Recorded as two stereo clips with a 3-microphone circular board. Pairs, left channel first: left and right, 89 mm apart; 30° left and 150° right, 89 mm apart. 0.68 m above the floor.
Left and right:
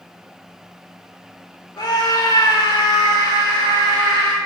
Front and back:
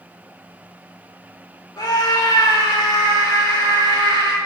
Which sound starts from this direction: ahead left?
A scream, at 1.8 s.